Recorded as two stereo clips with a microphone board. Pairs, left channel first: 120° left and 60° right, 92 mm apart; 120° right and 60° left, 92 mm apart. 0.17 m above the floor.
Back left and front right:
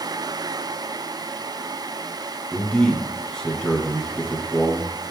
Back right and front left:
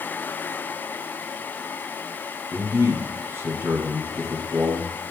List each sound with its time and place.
2.5 s a man speaking: 50° left, 1.5 m